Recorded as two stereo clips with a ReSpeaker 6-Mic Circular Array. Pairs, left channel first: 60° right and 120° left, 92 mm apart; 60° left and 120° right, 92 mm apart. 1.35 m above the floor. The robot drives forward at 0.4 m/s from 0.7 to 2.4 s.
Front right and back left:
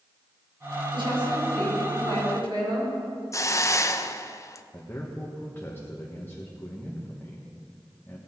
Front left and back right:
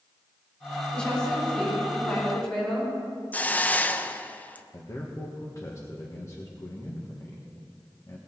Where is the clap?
No clap in this recording.